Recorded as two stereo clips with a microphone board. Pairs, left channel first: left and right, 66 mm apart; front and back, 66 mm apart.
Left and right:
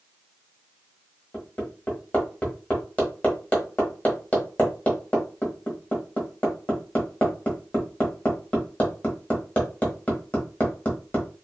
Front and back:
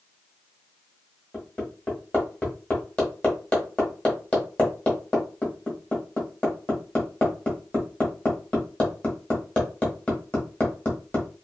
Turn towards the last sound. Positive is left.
turn(degrees=50)